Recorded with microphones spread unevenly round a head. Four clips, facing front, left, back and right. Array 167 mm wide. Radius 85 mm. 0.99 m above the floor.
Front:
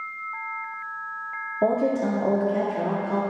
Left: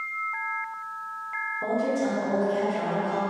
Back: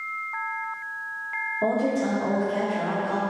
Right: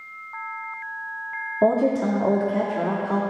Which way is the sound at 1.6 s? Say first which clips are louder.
Right 7 dB, front 2 dB; 75° right.